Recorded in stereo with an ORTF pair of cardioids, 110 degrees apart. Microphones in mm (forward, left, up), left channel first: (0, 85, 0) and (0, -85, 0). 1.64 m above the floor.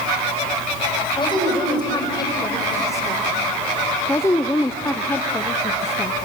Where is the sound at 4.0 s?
15° left, 0.7 m.